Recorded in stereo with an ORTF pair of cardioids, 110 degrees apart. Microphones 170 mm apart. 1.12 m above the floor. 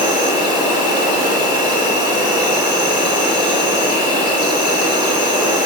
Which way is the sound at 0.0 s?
25° right.